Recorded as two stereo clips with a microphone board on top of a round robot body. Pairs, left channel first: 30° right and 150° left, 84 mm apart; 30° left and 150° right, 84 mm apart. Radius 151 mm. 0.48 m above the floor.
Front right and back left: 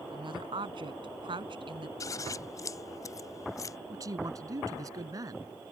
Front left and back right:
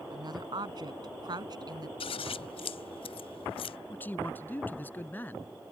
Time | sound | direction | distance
0.1 | a woman speaking | 175° left | ?
2.0 | scissors | 25° left | ?
3.9 | a man speaking | 100° left | ?